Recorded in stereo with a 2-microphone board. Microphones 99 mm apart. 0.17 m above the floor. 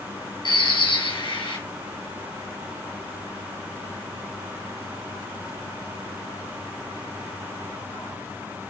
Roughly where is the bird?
Left.